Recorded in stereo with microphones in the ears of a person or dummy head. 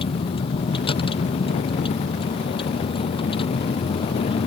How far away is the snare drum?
No snare drum in this recording.